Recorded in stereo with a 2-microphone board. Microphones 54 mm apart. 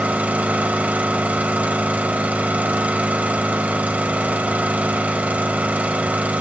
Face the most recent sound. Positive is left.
turn(degrees=-25)  # may be behind; listen again after turning